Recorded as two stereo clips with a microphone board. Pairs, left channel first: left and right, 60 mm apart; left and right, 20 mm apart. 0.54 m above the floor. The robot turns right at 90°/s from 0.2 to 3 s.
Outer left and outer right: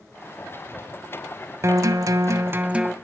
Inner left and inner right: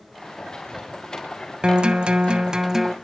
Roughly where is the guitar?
Behind right.